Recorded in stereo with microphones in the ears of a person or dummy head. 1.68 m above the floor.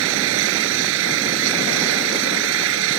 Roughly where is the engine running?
Right.